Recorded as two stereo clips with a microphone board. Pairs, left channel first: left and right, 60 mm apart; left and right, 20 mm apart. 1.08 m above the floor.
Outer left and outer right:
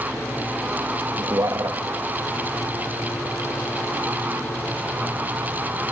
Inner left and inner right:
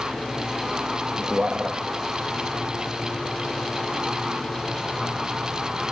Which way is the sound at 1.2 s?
70° right (ahead or behind).